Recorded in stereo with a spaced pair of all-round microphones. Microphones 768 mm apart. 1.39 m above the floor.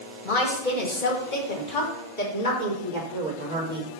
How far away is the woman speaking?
About 1.9 m.